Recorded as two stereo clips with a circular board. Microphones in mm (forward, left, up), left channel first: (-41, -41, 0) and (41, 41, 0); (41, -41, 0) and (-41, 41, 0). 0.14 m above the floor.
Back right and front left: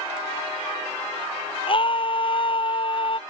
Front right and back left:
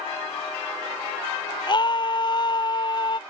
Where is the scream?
95° right.